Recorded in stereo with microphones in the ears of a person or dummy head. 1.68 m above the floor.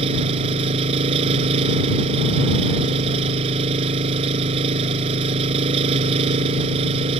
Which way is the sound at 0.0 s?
30° right (ahead or behind).